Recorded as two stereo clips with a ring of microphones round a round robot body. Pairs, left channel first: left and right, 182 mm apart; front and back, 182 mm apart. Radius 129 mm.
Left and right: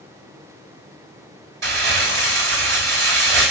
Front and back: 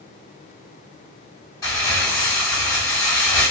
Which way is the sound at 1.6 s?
80° right.